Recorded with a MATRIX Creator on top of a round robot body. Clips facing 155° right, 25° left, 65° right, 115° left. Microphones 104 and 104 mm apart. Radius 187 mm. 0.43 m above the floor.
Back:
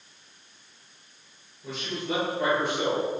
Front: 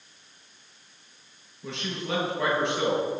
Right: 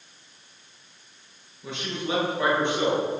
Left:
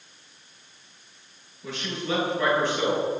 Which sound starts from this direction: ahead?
A man speaking, at 1.6 s.